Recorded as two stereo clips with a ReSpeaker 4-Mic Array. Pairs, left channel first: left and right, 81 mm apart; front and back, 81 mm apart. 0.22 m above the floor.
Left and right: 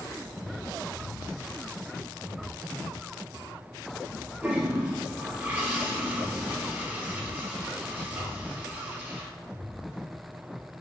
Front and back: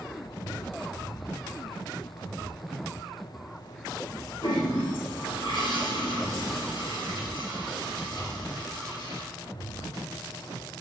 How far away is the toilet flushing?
About 1.1 m.